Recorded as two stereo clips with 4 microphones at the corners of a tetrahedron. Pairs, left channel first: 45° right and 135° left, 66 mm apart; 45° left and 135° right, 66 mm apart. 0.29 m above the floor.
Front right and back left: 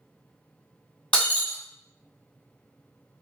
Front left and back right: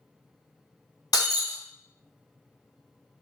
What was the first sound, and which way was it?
Breaking glass, 25° left.